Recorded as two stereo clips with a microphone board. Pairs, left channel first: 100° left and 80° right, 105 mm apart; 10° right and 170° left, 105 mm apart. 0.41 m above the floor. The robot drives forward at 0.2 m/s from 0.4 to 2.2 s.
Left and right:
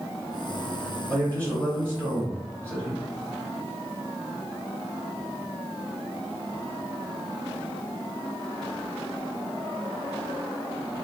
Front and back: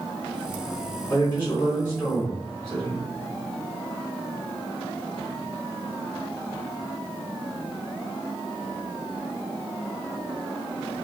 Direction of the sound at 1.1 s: 55° right.